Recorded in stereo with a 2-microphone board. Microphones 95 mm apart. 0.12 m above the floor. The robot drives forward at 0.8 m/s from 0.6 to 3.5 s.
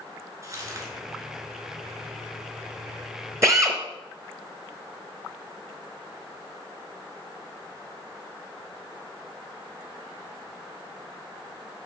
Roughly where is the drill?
Right.